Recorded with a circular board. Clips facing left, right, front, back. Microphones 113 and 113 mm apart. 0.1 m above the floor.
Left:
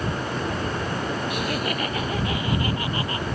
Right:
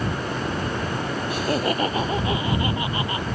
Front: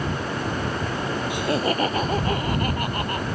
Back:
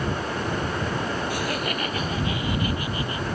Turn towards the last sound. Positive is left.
turn(degrees=-25)